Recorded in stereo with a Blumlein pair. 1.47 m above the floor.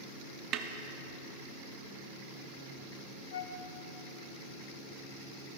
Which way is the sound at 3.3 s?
65° left.